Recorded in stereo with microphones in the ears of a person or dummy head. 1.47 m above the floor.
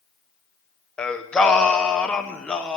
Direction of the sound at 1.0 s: Centre (ahead or behind).